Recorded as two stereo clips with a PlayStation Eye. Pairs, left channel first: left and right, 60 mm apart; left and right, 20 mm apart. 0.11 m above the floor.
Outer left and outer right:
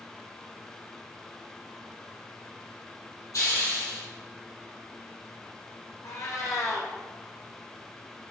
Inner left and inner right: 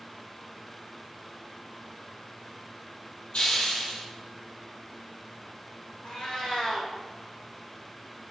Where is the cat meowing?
55° left (ahead or behind), 2.5 m.